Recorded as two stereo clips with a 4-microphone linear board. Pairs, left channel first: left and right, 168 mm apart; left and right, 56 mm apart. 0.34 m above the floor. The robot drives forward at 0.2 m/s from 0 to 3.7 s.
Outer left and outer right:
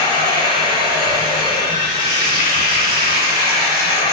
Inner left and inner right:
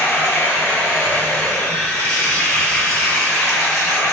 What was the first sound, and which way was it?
Running water, 35° left (ahead or behind).